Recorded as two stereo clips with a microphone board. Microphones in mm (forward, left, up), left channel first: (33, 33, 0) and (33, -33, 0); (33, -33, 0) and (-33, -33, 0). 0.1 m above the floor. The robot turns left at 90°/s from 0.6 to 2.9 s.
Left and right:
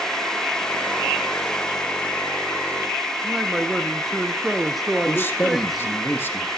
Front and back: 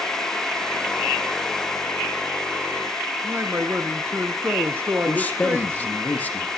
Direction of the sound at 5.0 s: 55° left.